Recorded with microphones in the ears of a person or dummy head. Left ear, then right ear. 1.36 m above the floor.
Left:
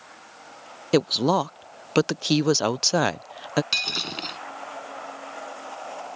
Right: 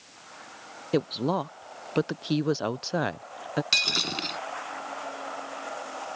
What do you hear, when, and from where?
0.9 s a woman speaking: 70° left (ahead or behind)
3.7 s breaking glass: 5° left (ahead or behind)